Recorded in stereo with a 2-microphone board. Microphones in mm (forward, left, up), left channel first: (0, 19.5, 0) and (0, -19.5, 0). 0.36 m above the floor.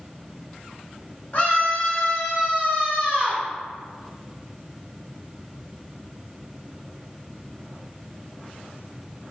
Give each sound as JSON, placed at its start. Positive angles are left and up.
{"t": 1.3, "sound": "a scream", "side_deg": 40, "distance_m": 2.5}